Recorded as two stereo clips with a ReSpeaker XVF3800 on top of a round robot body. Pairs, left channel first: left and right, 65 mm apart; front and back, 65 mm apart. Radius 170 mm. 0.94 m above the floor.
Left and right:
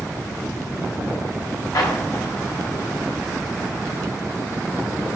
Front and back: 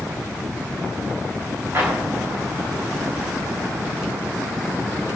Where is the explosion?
125° left, 3.5 m.